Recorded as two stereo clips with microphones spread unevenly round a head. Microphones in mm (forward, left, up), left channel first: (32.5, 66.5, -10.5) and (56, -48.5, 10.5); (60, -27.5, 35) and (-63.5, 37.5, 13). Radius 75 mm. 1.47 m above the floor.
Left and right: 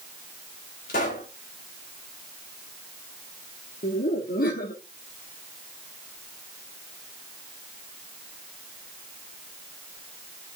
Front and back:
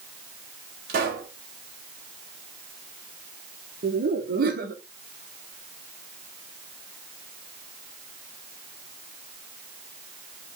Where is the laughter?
130° left, 1.4 m.